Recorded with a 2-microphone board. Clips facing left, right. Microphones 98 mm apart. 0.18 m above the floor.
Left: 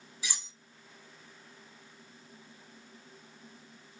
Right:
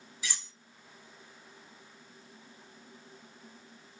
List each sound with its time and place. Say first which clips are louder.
0.2 s cutlery clinking: right 1 dB; 15° left (ahead or behind), 0.7 m